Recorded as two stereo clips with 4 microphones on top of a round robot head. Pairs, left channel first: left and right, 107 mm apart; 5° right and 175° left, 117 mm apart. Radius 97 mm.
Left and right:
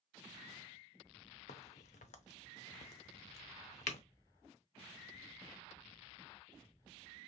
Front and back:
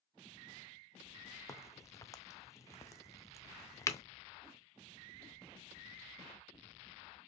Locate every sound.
1.5 s a crack: 65° left, 0.6 m